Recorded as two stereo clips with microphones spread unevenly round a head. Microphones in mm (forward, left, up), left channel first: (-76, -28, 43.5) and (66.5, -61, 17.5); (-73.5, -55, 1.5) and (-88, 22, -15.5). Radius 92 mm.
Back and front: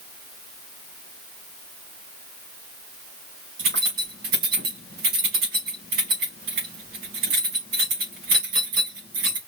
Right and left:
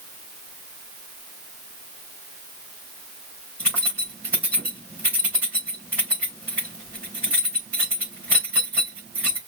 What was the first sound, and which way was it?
Keys jangling, 20° left.